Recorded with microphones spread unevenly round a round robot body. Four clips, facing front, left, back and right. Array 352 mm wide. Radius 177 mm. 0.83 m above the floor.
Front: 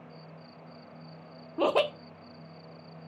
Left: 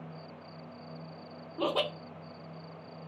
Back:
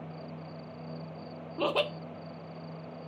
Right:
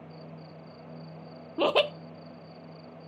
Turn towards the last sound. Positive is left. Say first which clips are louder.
# right 6 dB, front 4 dB
turn(degrees=-55)